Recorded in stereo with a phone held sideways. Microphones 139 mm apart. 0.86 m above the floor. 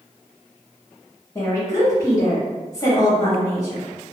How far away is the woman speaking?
About 0.8 m.